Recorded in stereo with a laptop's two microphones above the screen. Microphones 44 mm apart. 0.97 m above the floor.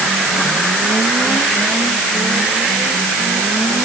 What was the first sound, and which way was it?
Only background noise.